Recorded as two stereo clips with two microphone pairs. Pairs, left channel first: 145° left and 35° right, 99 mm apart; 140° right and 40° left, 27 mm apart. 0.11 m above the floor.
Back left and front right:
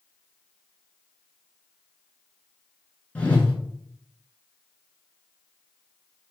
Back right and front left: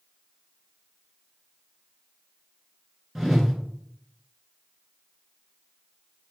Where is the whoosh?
95° left, 0.9 m.